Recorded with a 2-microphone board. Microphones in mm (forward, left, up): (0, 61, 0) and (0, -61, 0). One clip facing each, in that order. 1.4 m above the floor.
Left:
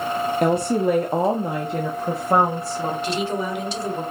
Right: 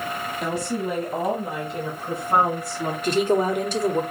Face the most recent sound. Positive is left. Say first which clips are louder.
# right 4 dB
turn(degrees=-45)  # may be behind; listen again after turning